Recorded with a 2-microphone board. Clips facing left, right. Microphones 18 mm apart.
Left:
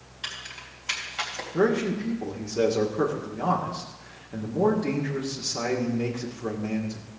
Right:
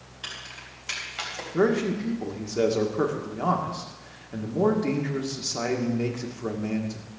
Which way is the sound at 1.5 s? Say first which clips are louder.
Even; 5° right (ahead or behind).